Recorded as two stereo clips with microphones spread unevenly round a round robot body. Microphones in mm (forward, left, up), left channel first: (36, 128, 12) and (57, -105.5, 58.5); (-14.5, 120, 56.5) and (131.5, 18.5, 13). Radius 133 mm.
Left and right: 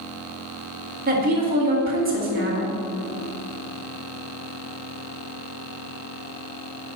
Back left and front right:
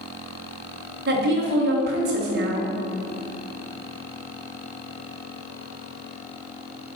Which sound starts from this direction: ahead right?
A woman speaking, at 1.1 s.